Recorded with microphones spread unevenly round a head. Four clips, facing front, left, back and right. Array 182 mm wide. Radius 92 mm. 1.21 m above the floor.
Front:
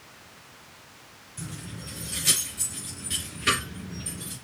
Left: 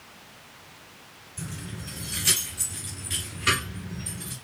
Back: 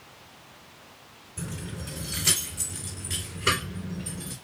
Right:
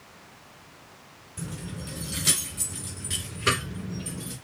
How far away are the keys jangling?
About 1.2 m.